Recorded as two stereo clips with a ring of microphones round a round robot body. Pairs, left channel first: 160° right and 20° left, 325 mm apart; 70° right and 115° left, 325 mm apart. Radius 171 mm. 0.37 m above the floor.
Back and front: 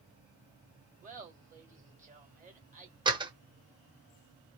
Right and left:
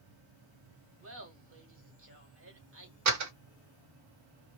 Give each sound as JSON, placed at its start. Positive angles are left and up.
{"t": 1.0, "sound": "laughter", "azimuth_deg": 80, "distance_m": 1.8}
{"t": 3.0, "sound": "a door slam", "azimuth_deg": 95, "distance_m": 1.0}